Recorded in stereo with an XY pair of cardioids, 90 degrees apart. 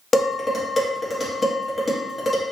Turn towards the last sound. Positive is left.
turn(degrees=30)